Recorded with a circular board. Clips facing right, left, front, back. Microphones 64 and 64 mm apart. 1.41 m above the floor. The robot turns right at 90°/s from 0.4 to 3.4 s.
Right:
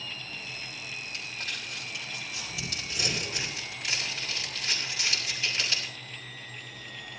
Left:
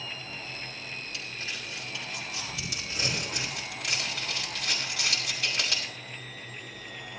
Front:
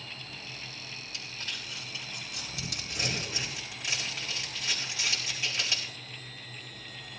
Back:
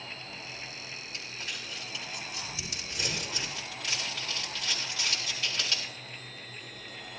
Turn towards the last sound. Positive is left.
turn(degrees=75)